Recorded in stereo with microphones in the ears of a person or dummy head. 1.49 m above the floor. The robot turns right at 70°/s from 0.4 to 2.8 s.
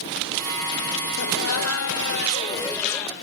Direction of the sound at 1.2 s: 55° left.